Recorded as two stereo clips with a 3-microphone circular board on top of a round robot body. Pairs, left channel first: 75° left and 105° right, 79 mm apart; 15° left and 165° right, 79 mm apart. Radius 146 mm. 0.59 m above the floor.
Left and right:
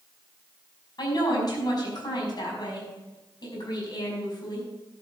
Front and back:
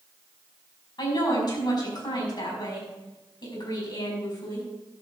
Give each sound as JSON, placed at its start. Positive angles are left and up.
{"t": 1.0, "sound": "a woman speaking", "azimuth_deg": 40, "distance_m": 5.5}